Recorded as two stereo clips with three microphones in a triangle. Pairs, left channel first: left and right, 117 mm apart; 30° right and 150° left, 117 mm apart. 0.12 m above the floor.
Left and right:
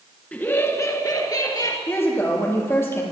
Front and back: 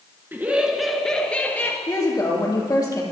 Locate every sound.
0.3 s laughter: 140° left, 1.2 m; by 1.8 s 40° left, 2.5 m
1.9 s a woman speaking: 25° left, 3 m